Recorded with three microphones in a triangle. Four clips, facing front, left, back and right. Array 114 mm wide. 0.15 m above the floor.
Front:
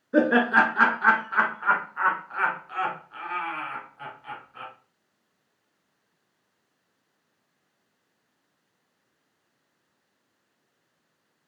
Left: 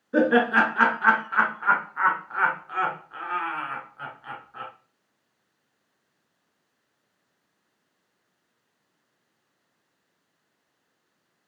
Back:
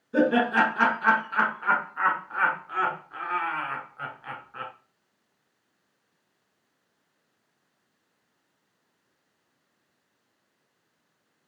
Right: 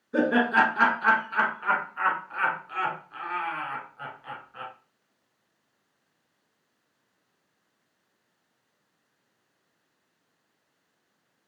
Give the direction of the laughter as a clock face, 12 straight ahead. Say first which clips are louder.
Left 2 dB, front 2 dB; 11 o'clock.